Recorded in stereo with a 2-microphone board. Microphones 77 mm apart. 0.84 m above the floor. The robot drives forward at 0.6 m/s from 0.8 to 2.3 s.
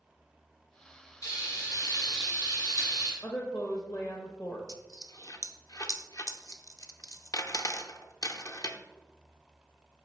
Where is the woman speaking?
45° left (ahead or behind), 0.8 m.